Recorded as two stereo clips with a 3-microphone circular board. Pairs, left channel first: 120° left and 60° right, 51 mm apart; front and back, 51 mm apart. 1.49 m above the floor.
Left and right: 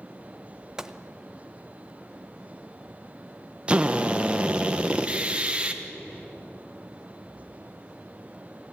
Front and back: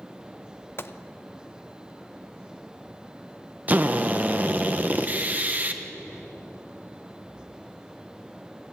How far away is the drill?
About 1.2 m.